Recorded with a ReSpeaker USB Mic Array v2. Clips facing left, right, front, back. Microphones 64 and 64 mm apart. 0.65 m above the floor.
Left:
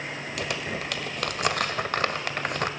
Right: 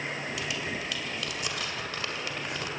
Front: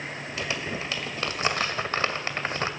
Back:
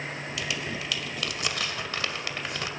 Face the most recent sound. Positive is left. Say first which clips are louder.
# left 3 dB, front 3 dB
turn(degrees=55)